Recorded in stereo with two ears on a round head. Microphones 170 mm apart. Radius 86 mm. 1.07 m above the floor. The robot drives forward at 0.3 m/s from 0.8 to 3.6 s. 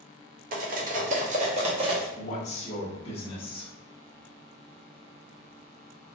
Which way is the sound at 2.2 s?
40° left (ahead or behind).